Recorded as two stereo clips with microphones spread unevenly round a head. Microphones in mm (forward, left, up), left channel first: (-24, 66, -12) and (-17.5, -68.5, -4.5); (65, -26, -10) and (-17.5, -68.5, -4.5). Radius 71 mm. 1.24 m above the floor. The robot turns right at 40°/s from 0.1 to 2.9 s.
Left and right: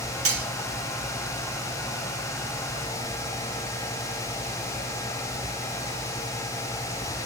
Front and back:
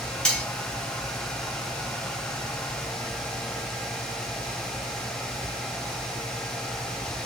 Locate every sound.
0.2 s cutlery clinking: 55° right, 1.0 m; by 0.5 s 45° right, 1.0 m